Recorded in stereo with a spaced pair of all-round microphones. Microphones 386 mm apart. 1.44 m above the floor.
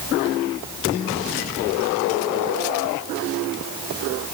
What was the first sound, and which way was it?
Only background noise.